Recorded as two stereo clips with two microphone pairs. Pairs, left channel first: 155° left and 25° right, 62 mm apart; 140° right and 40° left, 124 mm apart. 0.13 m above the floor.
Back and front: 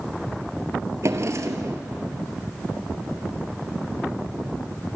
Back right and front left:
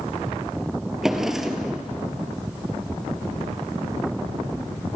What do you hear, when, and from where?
1.0 s a drawer: 45° right, 1.8 m